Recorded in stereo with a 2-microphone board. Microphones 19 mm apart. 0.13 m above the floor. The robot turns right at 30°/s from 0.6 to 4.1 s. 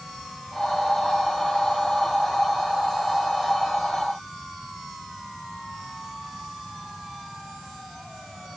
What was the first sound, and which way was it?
Only background noise.